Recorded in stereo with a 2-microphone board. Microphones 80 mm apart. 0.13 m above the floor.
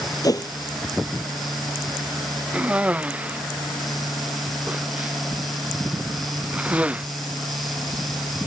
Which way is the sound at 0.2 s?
50° left (ahead or behind).